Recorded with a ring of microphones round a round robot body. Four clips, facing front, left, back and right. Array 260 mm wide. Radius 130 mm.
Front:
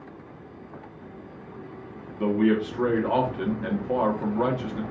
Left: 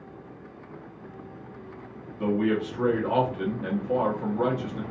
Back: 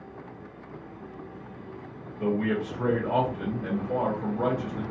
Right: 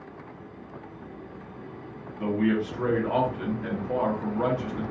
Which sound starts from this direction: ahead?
A man speaking, at 2.2 s.